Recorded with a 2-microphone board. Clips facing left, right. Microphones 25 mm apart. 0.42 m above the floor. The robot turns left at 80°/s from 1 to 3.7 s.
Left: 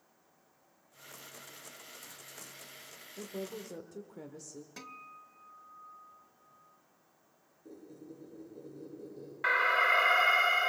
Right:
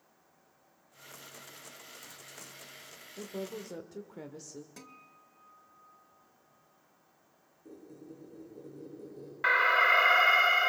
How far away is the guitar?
About 0.8 m.